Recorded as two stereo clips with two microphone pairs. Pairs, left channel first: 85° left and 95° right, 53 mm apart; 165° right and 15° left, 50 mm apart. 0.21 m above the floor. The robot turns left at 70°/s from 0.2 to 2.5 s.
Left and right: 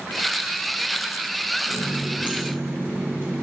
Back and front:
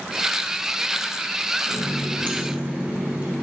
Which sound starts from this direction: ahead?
A running tap, at 1.7 s.